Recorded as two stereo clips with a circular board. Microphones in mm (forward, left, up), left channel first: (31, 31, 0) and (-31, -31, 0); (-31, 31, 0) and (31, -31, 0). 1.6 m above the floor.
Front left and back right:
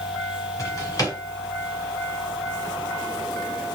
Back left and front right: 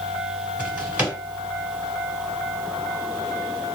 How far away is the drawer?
About 1.8 m.